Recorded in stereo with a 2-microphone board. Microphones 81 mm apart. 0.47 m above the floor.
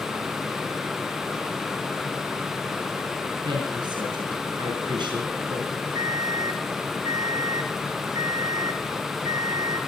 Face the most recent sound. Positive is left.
turn(degrees=-60)  # may be behind; listen again after turning